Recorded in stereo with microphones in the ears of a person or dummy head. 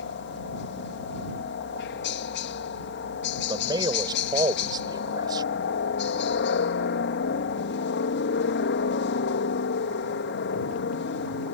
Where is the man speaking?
25° right (ahead or behind).